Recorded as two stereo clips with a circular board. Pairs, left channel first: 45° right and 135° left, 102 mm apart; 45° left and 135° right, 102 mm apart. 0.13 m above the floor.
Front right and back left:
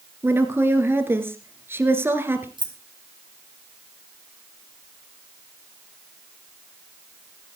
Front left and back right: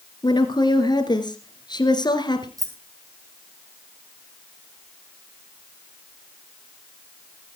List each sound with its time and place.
0.2 s a woman speaking: 75° left, 1.9 m
2.6 s keys jangling: 170° left, 3 m